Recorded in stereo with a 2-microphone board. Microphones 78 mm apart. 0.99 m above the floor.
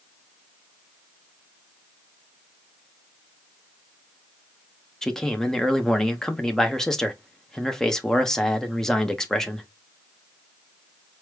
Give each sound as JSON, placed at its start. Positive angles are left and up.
{"t": 5.0, "sound": "a man speaking", "side_deg": 5, "distance_m": 0.8}